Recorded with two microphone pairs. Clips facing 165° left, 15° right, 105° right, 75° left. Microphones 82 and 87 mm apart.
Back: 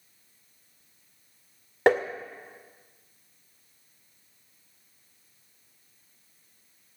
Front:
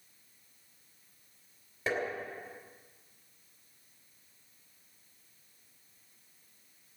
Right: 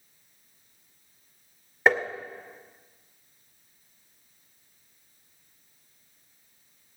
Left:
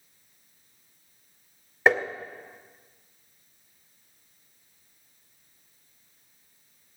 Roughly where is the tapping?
Behind.